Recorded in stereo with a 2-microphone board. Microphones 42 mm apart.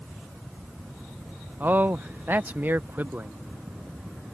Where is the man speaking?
45° right (ahead or behind).